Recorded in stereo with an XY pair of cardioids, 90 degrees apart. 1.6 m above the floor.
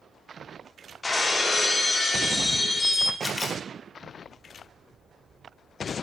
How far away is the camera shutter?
About 3 m.